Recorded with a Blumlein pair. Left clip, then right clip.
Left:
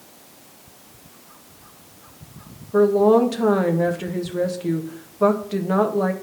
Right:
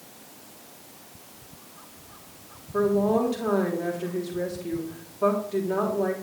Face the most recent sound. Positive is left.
turn(degrees=40)